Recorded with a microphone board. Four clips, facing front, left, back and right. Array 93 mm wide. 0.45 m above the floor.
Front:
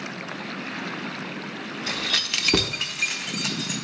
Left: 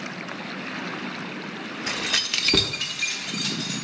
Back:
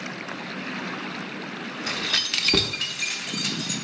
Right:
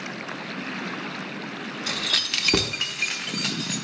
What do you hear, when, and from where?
1.9 s keys jangling: 105° left, 0.6 m; by 3.8 s 60° right, 0.9 m